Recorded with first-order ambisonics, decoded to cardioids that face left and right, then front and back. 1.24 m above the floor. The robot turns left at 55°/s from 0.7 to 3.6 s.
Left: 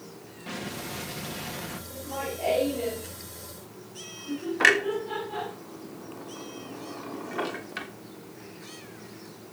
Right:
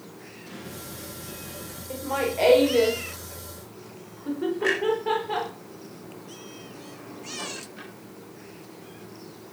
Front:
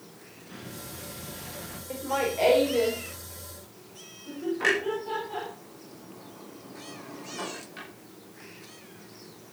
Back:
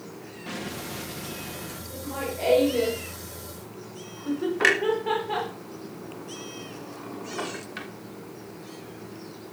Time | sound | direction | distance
0.5 | an explosion | 150° left | 2.5 m
1.9 | laughter | 40° right | 3.5 m
4.6 | a clunk | 120° left | 3 m